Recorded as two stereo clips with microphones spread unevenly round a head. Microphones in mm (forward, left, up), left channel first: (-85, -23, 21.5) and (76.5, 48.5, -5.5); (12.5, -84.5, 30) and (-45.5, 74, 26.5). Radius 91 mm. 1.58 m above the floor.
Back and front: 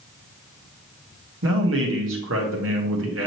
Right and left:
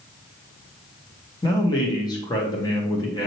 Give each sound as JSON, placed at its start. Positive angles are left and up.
{"t": 1.4, "sound": "a man speaking", "azimuth_deg": 0, "distance_m": 1.7}